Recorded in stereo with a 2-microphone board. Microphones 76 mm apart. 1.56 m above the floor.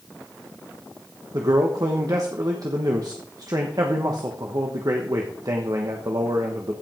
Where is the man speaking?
50° right (ahead or behind), 1.2 m.